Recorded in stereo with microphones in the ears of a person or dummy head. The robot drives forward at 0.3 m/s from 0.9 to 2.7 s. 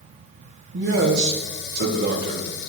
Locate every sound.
0.7 s a man speaking: 60° right (ahead or behind), 1.3 m; by 2.4 s 45° right (ahead or behind), 1.6 m